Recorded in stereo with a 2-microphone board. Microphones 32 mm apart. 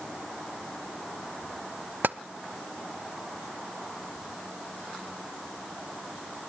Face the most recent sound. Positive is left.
turn(degrees=-75)  # may be behind; listen again after turning